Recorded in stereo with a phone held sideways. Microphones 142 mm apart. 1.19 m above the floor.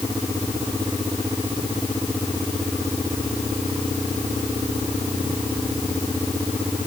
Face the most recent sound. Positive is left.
No sound to turn to.